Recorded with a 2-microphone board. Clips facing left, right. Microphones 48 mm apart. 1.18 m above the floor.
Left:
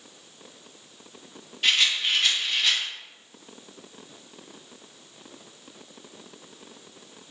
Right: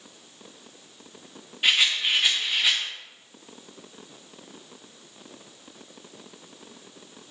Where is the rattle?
15° right (ahead or behind), 2.5 m.